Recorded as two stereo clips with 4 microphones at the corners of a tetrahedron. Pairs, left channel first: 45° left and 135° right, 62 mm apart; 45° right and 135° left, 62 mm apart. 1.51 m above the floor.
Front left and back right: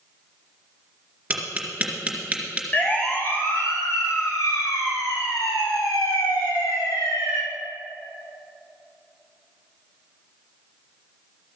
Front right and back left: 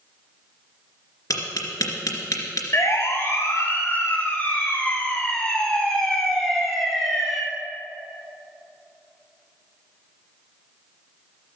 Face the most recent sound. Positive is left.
turn(degrees=50)